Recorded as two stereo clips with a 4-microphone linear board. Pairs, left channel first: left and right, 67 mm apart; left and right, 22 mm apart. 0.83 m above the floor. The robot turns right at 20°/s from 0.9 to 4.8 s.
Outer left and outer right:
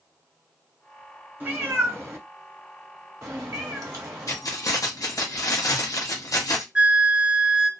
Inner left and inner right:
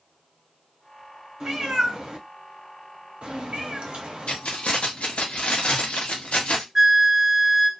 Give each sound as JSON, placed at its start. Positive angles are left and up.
{"t": 1.4, "sound": "a cat meowing", "side_deg": -25, "distance_m": 1.1}
{"t": 4.3, "sound": "keys jangling", "side_deg": 50, "distance_m": 0.7}
{"t": 6.8, "sound": "a flute", "side_deg": -20, "distance_m": 0.7}